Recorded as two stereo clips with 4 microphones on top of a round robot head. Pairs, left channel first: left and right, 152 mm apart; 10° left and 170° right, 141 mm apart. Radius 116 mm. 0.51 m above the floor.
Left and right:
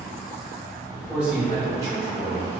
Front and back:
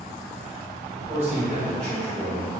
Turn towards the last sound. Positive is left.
turn(degrees=-40)